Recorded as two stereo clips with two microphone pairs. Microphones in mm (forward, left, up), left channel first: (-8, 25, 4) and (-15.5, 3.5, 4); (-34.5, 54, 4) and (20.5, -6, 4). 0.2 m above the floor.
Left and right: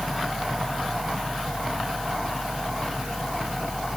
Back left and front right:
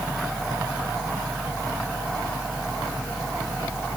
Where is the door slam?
No door slam in this recording.